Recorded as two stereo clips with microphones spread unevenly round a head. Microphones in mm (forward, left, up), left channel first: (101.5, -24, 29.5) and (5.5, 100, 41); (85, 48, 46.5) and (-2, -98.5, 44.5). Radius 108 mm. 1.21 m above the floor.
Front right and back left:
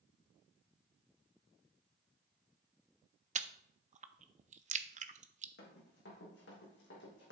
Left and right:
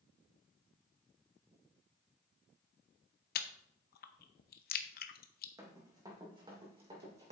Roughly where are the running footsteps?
Ahead right.